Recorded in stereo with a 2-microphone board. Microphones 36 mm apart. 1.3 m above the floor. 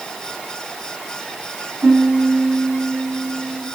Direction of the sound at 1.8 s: 60° right (ahead or behind).